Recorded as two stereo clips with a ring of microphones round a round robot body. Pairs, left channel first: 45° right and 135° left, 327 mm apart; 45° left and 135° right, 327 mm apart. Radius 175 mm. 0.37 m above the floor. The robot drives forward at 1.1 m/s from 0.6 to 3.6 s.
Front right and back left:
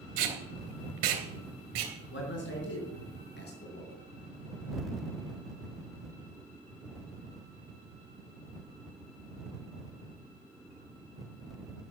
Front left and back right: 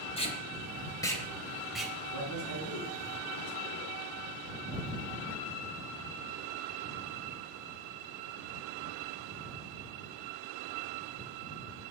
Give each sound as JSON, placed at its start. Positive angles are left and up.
{"t": 0.2, "sound": "tape being pulled", "azimuth_deg": 115, "distance_m": 3.0}
{"t": 2.1, "sound": "a man speaking", "azimuth_deg": 10, "distance_m": 5.0}